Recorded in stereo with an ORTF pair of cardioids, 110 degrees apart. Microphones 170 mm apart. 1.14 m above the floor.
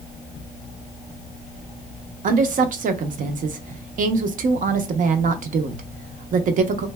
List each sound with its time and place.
2.2 s a woman speaking: 55° right, 0.7 m